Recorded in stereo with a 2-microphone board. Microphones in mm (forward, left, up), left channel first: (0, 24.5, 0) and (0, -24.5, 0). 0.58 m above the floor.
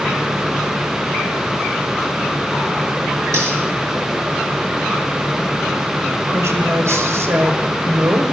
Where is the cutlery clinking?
75° right (ahead or behind), 6 m.